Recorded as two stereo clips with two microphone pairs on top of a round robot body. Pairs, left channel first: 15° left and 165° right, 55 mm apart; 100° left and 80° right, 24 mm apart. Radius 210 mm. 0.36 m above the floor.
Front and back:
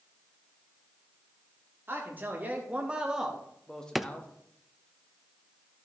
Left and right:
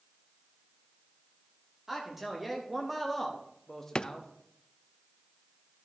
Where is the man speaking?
150° right, 1.9 m; by 4.3 s 55° left, 1.5 m.